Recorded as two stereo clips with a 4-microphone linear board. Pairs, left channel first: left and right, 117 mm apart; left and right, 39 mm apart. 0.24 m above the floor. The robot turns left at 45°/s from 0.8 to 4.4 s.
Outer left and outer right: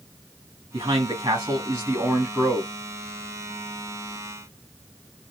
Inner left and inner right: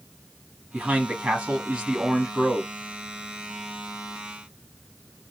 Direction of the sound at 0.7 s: 105° right.